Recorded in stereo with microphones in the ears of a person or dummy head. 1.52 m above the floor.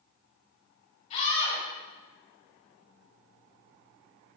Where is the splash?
I don't hear a splash.